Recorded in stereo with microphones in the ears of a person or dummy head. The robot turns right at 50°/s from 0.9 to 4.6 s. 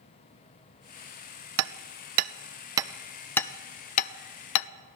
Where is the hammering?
75° right (ahead or behind), 0.5 m; by 4.7 s 75° left (ahead or behind), 0.5 m.